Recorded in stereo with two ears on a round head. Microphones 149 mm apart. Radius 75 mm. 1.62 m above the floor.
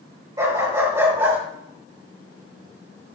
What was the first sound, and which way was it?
A dog barking, 20° right (ahead or behind).